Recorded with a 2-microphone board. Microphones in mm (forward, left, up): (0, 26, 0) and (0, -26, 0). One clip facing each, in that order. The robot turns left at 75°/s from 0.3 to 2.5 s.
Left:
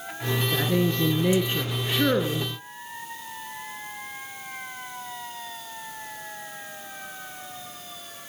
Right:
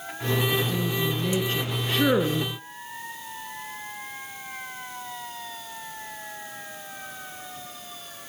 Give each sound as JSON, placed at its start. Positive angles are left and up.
{"t": 0.5, "sound": "a woman speaking", "azimuth_deg": 110, "distance_m": 1.5}